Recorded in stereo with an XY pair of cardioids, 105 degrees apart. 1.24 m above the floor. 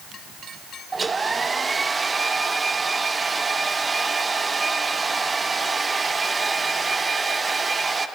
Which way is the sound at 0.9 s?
25° right.